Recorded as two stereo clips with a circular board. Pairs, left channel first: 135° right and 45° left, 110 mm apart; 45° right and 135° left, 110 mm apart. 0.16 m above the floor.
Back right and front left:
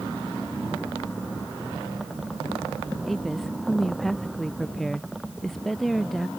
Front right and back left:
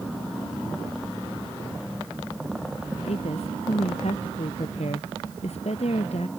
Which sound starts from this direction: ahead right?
A woman speaking, at 3.1 s.